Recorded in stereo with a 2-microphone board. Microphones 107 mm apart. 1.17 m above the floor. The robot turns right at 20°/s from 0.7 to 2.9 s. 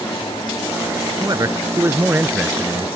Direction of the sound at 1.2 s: 35° right.